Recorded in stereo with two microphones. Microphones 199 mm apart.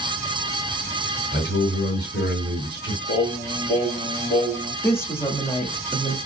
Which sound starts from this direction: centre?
A woman speaking, at 4.8 s.